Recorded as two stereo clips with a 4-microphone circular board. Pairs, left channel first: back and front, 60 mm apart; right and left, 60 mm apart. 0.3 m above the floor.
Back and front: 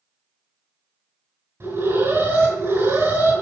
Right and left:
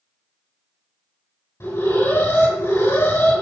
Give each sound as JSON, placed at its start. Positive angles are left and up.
{"t": 1.6, "sound": "an alarm", "azimuth_deg": -45, "distance_m": 5.5}